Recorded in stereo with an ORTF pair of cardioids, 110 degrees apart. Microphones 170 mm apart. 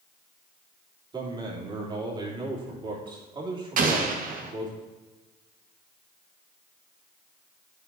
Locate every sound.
1.1 s a man speaking: 30° right, 3 m
3.8 s an explosion: 55° right, 1.5 m